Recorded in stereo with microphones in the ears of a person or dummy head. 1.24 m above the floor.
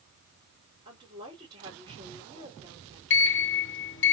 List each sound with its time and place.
0.8 s a woman speaking: 25° right (ahead or behind), 3 m
3.1 s a sliding door: 55° left (ahead or behind), 0.8 m